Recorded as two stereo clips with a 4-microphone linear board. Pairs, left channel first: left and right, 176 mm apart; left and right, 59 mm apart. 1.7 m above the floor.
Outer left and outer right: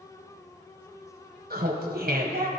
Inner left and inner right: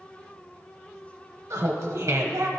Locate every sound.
1.5 s laughter: 55° right (ahead or behind), 0.9 m